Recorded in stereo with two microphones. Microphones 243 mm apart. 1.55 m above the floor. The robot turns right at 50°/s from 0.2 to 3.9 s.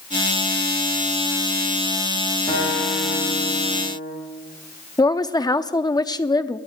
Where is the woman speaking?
15° left (ahead or behind), 0.6 m.